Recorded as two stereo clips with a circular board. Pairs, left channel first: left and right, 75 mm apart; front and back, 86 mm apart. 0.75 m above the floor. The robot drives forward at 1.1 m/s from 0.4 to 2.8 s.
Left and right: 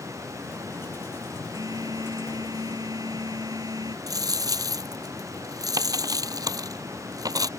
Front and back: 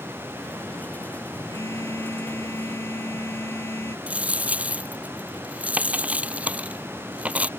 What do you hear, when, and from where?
1.5 s a phone buzzing: 55° right; by 4.0 s 60° right
4.1 s a dropped coin: 110° right